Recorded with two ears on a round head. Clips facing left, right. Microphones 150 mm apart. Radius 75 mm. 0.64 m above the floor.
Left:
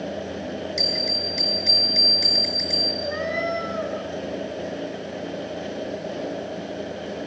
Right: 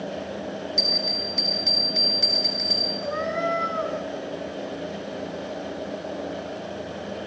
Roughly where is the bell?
Centre.